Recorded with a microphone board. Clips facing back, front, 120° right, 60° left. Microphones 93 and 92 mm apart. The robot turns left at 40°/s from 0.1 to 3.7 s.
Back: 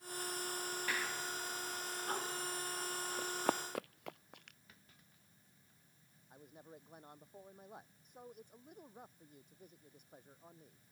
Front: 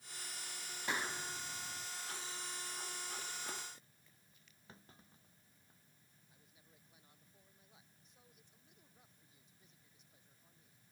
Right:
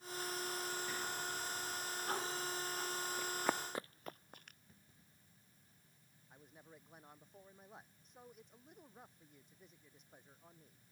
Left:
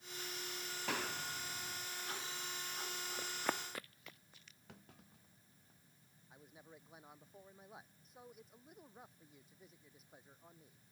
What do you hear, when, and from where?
0.9 s a clap: 70° left; by 1.9 s 30° left
3.2 s running footsteps: 135° left; by 4.6 s 155° right
4.7 s a clunk: 60° left
6.3 s a man speaking: 145° left